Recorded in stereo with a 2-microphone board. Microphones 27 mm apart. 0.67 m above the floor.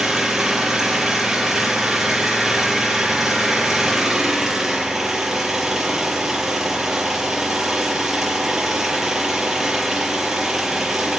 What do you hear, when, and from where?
0.0 s an engine running: 15° right (ahead or behind), 6.5 m